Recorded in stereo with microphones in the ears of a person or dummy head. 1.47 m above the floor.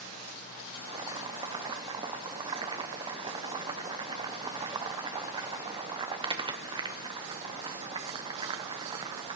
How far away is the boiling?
About 0.9 m.